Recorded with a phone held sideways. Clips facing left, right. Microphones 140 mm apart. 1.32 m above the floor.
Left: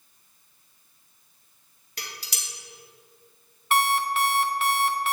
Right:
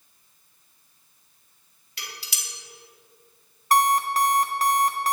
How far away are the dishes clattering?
About 1.9 m.